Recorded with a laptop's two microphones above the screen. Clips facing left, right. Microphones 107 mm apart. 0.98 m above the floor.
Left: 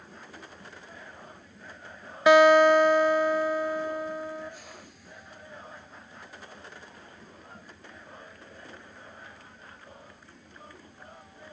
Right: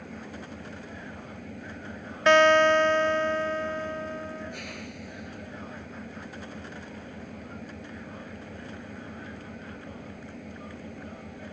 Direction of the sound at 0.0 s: 70° right (ahead or behind).